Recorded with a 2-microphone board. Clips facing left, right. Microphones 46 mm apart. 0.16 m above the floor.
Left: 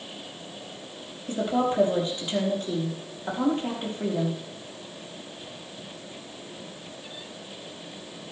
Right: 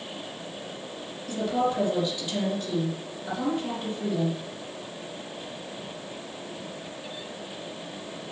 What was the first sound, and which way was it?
A woman speaking, 35° left (ahead or behind).